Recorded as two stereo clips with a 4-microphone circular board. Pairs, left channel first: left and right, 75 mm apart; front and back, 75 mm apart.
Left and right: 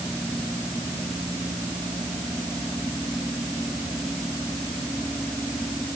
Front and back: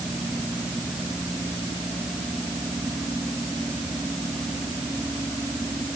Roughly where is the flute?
I don't hear a flute.